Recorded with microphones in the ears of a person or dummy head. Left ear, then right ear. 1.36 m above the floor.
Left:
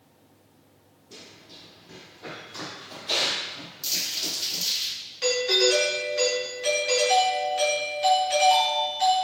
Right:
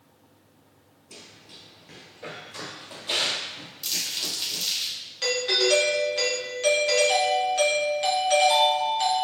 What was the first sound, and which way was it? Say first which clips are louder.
Running footsteps: even; 40° right (ahead or behind).